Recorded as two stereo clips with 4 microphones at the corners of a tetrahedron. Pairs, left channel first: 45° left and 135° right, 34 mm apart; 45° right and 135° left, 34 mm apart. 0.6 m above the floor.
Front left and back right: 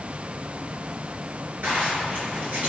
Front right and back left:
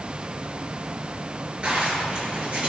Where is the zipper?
165° right, 3.5 m.